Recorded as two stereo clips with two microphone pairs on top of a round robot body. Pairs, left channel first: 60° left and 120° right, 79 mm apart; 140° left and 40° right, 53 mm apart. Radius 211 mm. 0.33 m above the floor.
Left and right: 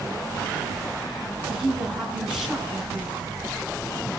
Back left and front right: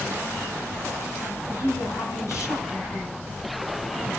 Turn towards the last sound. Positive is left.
turn(degrees=155)